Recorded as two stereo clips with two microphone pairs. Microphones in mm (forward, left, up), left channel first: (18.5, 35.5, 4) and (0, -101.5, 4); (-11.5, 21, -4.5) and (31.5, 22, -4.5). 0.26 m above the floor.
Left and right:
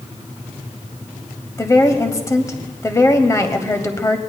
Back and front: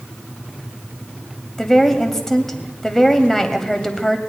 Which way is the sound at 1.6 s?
115° left.